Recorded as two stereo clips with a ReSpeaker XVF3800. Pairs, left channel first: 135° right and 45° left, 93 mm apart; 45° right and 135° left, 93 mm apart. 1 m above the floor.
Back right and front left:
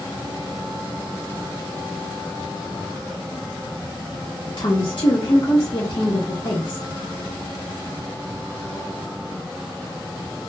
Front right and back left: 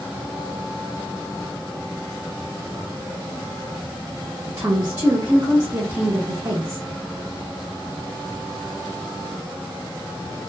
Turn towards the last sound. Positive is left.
turn(degrees=-175)